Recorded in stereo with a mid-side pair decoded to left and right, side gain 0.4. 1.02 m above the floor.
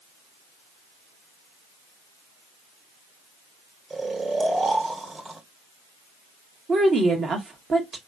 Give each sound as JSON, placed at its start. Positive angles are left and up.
{"t": 3.9, "sound": "snoring", "azimuth_deg": -40, "distance_m": 1.6}
{"t": 6.7, "sound": "a woman speaking", "azimuth_deg": -50, "distance_m": 1.6}